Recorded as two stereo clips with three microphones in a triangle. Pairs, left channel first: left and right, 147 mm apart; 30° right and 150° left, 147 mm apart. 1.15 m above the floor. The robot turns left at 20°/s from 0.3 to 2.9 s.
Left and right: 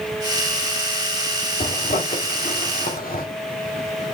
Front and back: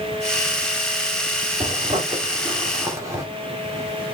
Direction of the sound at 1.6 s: 105° left.